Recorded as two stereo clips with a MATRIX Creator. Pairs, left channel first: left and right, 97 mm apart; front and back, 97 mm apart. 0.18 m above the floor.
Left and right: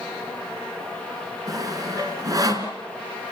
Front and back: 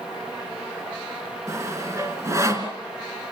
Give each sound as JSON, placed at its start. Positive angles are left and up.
{"t": 1.5, "sound": "sawing", "azimuth_deg": -130, "distance_m": 2.5}